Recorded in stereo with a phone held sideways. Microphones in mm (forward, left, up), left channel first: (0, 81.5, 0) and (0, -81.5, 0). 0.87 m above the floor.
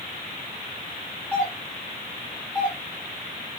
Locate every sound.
1.3 s a doorbell: 5° left (ahead or behind), 1.8 m